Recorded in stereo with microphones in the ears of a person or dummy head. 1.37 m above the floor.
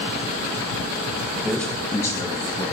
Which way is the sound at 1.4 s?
Centre (ahead or behind).